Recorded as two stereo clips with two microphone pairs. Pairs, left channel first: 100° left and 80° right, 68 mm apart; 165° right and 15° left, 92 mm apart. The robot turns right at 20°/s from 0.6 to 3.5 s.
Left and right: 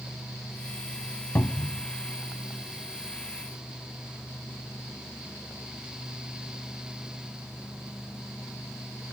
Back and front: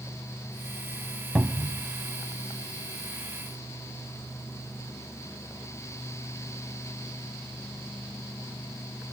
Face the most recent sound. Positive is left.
turn(degrees=130)